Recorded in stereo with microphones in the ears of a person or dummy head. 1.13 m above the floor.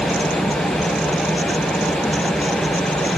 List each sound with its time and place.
0.0 s an engine running: 5° left (ahead or behind)